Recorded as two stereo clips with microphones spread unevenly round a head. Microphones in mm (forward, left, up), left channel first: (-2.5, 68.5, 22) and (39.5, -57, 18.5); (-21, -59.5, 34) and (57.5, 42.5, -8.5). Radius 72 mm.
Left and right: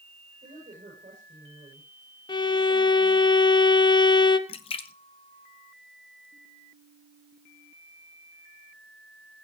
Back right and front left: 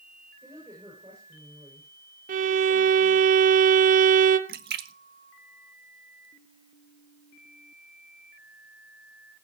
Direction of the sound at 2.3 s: 50° left.